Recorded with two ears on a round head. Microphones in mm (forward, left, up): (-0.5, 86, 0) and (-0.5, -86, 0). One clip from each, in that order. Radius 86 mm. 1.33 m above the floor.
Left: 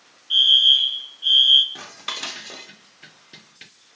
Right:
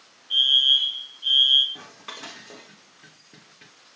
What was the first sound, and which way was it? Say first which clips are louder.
A fire alarm: left 4 dB; 35° left (ahead or behind).